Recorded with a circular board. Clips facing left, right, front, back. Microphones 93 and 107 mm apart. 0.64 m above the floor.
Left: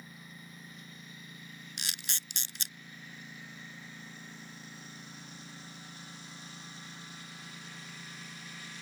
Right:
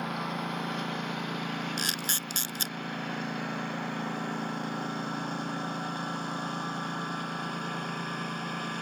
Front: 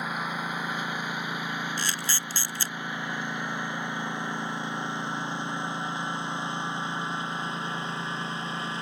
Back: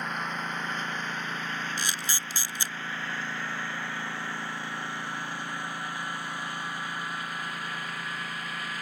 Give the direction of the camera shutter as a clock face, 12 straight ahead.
4 o'clock.